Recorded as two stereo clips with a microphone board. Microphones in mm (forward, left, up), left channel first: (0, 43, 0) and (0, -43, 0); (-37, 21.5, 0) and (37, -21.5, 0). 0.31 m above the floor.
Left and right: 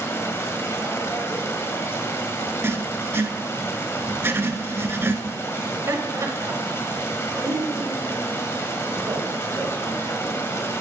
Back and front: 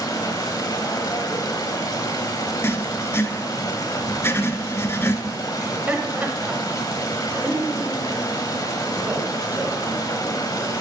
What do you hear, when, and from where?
0.0 s running water: 135° left, 1.2 m
2.6 s writing: 150° right, 0.6 m
5.6 s laughter: 85° right, 1.2 m